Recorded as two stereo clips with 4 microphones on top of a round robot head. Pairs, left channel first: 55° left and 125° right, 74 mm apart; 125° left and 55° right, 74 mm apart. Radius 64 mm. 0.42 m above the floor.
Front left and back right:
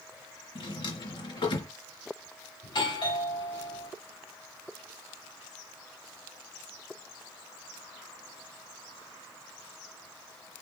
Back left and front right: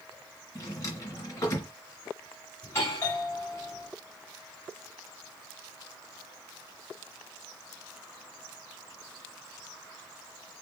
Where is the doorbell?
70° left, 4.5 m.